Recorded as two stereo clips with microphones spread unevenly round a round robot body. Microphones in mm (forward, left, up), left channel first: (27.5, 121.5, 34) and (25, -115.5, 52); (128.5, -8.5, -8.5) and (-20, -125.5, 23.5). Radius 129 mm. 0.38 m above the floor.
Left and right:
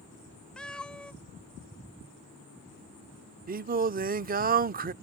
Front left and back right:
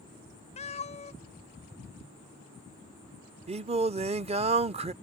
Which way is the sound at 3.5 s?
95° right.